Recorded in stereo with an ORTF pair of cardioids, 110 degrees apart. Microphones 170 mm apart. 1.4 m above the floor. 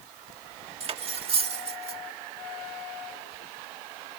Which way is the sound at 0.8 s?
35° right.